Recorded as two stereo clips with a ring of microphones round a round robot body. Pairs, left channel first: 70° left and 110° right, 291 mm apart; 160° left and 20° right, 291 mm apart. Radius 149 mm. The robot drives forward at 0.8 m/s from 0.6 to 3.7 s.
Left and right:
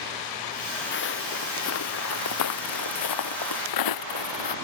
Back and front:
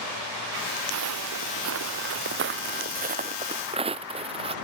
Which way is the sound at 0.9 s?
15° left.